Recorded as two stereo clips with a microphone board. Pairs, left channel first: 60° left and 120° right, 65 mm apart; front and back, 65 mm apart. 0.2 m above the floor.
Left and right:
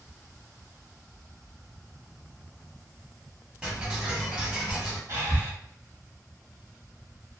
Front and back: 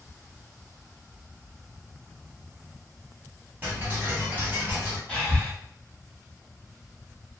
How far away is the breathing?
About 1.2 m.